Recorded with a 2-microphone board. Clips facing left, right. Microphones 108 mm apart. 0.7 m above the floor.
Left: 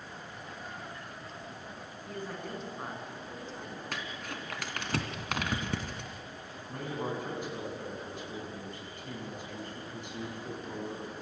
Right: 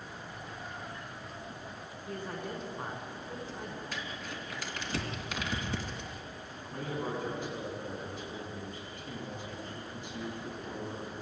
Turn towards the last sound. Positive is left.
turn(degrees=60)  # may be behind; listen again after turning